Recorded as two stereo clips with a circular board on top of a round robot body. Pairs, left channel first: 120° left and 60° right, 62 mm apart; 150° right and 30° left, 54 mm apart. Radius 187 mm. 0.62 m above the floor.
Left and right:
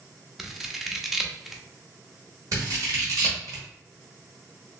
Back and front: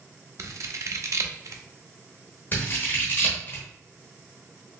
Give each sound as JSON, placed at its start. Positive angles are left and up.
{"t": 0.4, "sound": "scissors", "azimuth_deg": 25, "distance_m": 0.7}
{"t": 2.5, "sound": "scissors", "azimuth_deg": -95, "distance_m": 0.9}